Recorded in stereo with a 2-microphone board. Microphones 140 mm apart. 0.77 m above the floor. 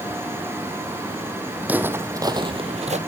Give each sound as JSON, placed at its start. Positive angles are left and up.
{"t": 1.6, "sound": "footsteps", "side_deg": -10, "distance_m": 1.9}